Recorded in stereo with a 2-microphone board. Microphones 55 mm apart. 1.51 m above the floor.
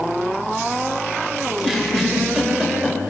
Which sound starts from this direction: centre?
A giggle, at 1.5 s.